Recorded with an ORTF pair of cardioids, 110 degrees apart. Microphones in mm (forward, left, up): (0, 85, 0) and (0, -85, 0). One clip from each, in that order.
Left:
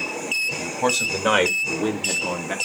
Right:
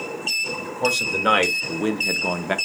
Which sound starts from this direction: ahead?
A man speaking, at 0.6 s.